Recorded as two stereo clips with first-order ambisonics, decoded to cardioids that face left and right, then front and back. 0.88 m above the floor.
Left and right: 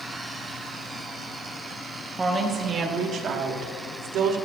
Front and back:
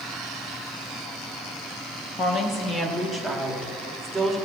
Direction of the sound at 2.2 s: 25° right.